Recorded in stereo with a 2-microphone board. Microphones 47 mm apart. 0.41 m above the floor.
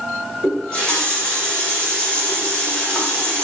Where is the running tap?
10° left (ahead or behind), 2 m.